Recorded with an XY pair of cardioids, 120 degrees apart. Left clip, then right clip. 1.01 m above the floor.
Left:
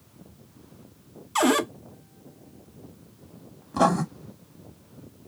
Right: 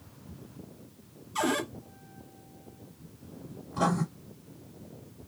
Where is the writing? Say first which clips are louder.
Left 7 dB; 70° left, 1.3 m.